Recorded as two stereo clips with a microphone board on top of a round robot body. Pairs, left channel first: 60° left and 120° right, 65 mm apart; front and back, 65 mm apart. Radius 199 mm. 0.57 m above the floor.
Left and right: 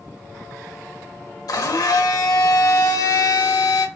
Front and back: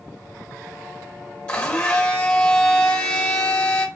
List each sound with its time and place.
1.5 s a blender: 70° left, 1.3 m